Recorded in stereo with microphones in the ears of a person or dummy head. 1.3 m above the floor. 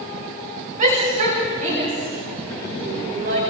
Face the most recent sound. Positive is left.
turn(degrees=-45)  # may be behind; listen again after turning